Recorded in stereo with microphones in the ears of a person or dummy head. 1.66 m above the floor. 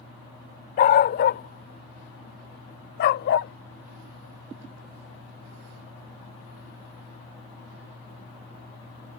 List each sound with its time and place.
0.8 s a dog barking: 50° left (ahead or behind); by 3.5 s 65° left (ahead or behind)